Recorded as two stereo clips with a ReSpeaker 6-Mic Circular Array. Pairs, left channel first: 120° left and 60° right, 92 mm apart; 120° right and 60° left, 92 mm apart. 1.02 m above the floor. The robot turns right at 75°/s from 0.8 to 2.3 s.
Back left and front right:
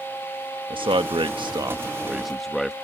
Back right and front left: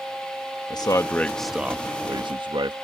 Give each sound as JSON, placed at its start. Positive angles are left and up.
{"t": 0.7, "sound": "a man speaking", "azimuth_deg": -80}